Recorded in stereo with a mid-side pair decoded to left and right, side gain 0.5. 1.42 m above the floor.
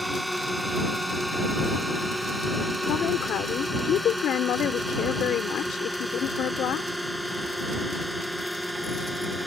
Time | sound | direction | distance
0.0 | a drone | 5° right | ?
2.9 | a woman speaking | 60° left | ?